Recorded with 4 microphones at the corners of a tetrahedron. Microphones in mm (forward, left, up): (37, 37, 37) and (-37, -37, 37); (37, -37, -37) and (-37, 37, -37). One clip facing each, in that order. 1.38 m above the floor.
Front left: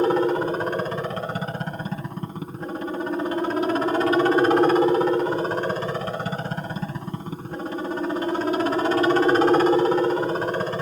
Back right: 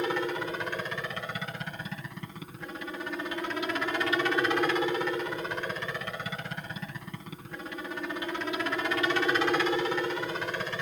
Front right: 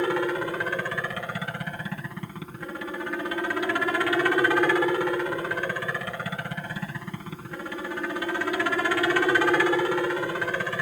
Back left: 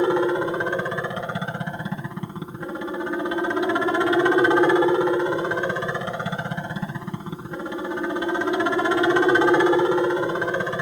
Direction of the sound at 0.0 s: 75° left.